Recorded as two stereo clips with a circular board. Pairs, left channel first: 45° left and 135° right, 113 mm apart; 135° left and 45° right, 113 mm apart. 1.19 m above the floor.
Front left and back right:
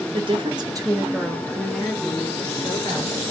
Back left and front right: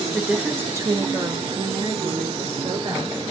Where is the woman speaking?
135° right, 0.7 m; by 3.2 s 15° right, 1.4 m.